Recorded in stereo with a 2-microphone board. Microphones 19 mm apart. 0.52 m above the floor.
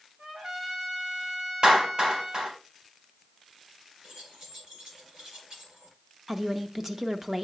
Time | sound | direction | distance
0.2 | a trumpet | 70° right (ahead or behind) | 2.5 m
1.6 | a clap | 50° right (ahead or behind) | 3 m
4.0 | keys jangling | 55° right (ahead or behind) | 6 m
6.3 | a woman speaking | 25° right (ahead or behind) | 0.8 m